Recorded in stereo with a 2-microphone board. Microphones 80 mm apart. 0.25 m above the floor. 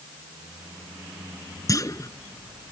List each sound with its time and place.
1.7 s a clunk: 40° left (ahead or behind)